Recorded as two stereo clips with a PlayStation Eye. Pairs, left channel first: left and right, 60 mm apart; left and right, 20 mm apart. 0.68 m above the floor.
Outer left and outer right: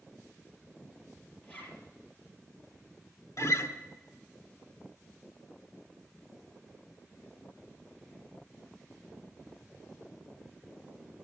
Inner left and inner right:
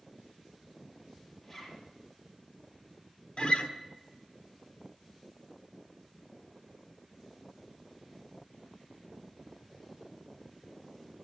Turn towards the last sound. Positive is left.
turn(degrees=60)  # may be behind; listen again after turning